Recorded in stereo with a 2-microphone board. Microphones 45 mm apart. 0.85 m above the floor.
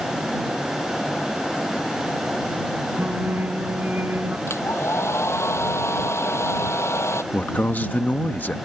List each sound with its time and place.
3.0 s singing: 45° right (ahead or behind)
4.5 s a hair dryer: 85° left
7.3 s a man speaking: 45° left (ahead or behind)